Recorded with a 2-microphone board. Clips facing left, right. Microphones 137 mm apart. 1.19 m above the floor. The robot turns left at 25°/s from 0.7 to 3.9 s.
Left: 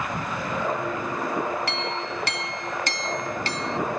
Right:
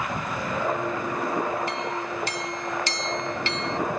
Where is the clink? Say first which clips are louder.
Even; 85° left; by 3.8 s 30° left.